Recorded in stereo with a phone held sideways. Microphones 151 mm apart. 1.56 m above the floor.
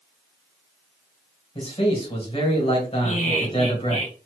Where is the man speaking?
40° left (ahead or behind), 1.6 m.